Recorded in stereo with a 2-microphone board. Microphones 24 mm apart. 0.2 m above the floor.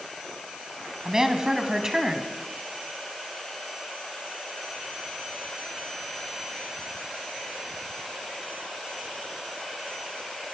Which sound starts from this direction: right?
A woman speaking, at 1.1 s.